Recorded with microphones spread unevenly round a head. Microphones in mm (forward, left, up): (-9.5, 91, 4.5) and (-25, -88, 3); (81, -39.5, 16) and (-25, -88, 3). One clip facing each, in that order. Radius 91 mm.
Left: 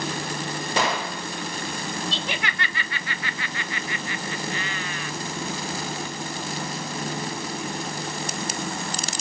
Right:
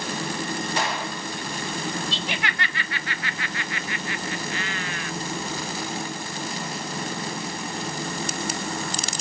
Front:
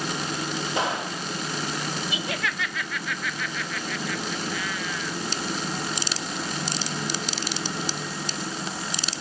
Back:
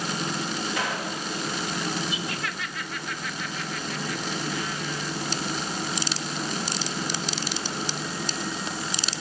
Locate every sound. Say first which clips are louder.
0.8 s a gunshot: left 3 dB, front 2 dB; 100° left, 2 m
2.1 s laughter: even, front 2 dB; 75° left, 0.9 m